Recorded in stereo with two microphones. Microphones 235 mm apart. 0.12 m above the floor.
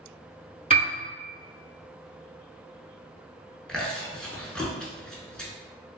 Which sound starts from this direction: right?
A piano, at 0.7 s.